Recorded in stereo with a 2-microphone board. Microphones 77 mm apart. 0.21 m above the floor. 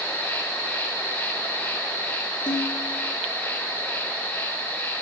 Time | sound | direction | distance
0.0 | an insect | 25° left (ahead or behind) | 4 m
2.5 | dishes clattering | 85° left | 6.5 m